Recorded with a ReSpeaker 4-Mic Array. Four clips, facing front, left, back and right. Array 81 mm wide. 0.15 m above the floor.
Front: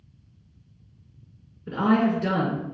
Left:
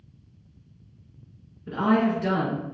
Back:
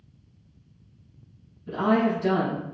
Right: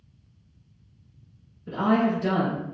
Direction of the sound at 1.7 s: 25° left.